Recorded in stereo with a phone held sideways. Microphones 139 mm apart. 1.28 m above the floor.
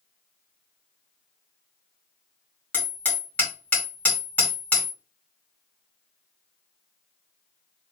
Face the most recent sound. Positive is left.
turn(degrees=10)  # may be behind; listen again after turning